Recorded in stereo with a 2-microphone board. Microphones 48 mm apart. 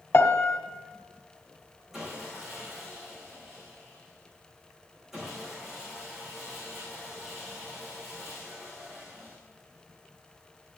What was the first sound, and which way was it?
A piano, 65° left (ahead or behind).